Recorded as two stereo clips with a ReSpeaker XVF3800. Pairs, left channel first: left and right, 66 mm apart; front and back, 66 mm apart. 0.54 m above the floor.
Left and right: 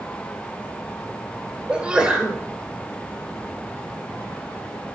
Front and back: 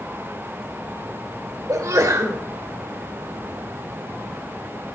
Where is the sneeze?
165° right, 2.5 m.